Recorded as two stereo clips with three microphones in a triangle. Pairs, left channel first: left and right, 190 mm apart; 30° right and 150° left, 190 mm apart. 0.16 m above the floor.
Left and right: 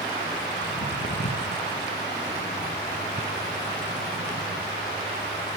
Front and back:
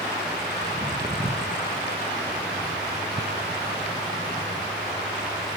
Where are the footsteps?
65° left, 1.2 m; by 5.6 s 110° left, 3 m.